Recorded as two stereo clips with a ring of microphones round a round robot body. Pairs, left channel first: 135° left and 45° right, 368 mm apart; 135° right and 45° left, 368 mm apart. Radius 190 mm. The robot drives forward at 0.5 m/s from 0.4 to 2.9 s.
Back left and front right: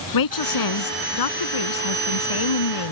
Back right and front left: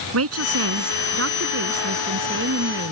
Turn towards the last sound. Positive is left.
turn(degrees=110)